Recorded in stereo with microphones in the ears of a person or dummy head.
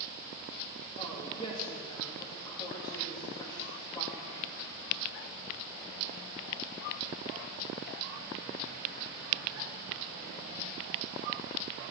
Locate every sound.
1.0 s a woman speaking: 25° left (ahead or behind), 2.5 m